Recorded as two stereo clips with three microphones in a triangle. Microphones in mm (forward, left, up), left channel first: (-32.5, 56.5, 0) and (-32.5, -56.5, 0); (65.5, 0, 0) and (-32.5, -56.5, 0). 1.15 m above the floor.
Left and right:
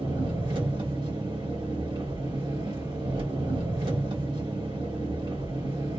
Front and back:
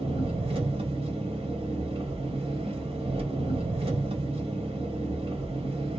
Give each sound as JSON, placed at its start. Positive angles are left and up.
{"t": 0.0, "sound": "an engine running", "azimuth_deg": -125, "distance_m": 1.2}